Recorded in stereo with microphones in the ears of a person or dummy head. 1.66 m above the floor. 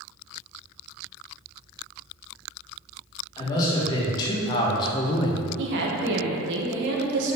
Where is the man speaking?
25° left (ahead or behind), 2 m.